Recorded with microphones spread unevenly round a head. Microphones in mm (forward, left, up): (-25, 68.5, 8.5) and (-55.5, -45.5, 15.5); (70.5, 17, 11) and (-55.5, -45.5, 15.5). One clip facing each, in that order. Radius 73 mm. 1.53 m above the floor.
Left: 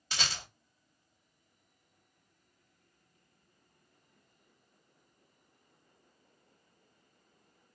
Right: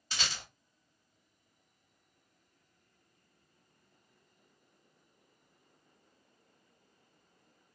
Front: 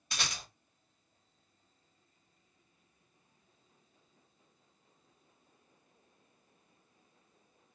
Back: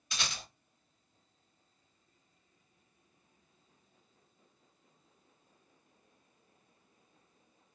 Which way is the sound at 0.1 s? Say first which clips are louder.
Left 2 dB, even; 80° left.